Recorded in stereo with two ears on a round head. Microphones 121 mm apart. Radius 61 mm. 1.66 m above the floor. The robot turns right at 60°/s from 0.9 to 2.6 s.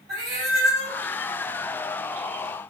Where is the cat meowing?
55° right (ahead or behind), 2.5 m; by 1.0 s 50° right (ahead or behind), 2.5 m.